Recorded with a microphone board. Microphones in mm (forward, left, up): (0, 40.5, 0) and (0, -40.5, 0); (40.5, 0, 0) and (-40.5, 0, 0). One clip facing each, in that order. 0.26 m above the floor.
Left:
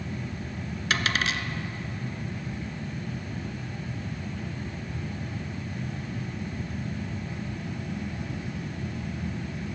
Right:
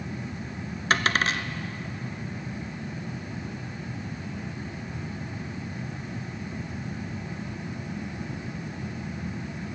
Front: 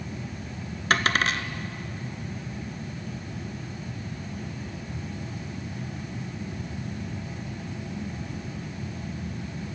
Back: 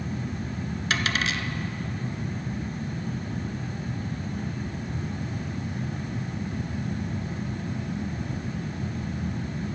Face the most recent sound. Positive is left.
turn(degrees=-40)